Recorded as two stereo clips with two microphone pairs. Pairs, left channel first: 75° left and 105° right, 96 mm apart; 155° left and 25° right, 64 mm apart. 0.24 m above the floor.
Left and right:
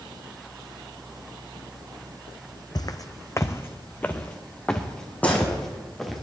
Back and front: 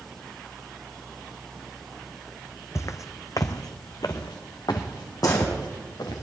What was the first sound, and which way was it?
Footsteps, 120° left.